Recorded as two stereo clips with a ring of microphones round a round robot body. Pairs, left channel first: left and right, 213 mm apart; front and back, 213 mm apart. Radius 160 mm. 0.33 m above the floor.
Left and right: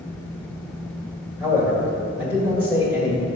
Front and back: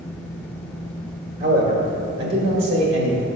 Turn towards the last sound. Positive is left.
turn(degrees=-175)